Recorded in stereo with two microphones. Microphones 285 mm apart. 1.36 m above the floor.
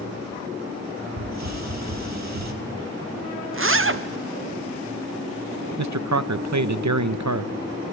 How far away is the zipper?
About 0.8 m.